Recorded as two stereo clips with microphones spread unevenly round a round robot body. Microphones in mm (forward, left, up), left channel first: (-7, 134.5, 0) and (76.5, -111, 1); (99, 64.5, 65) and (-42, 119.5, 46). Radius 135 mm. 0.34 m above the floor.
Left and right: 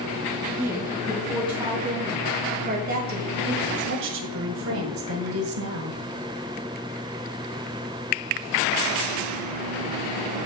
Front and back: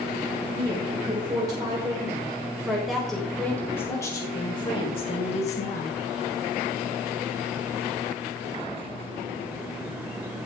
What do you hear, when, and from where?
0.6 s a woman speaking: 150° right, 3 m; by 6.0 s 55° right, 2.5 m